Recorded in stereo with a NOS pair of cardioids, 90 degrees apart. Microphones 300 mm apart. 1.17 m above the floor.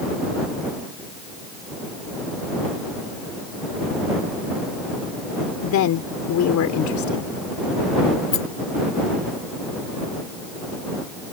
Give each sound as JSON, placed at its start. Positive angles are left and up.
{"t": 5.6, "sound": "a woman speaking", "azimuth_deg": 70}
{"t": 8.3, "sound": "a rattle", "azimuth_deg": 60}